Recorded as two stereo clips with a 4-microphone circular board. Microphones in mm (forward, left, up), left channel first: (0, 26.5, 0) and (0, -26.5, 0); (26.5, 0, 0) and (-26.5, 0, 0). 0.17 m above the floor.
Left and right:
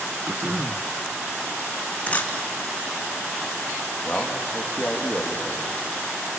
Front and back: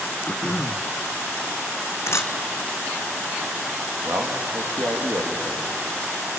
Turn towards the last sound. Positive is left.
turn(degrees=165)